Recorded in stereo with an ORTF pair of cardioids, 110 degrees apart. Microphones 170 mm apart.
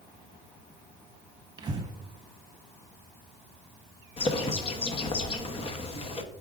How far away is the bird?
About 0.9 m.